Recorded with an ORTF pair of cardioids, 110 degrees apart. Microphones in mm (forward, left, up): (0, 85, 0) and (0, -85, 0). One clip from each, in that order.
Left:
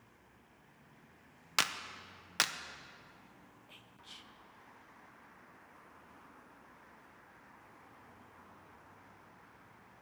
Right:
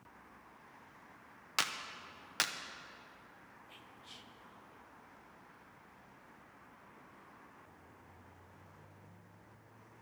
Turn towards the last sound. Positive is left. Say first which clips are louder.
# left 1 dB
turn(degrees=10)